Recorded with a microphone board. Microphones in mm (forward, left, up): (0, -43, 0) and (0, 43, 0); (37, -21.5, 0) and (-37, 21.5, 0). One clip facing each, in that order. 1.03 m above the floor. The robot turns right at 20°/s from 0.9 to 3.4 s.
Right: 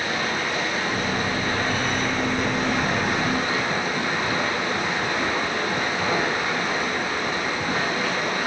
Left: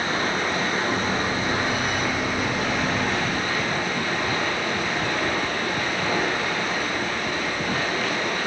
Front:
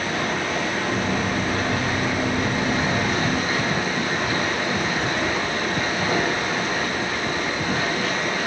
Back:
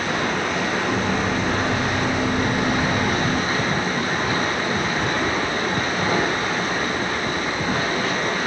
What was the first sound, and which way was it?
Running water, 145° left.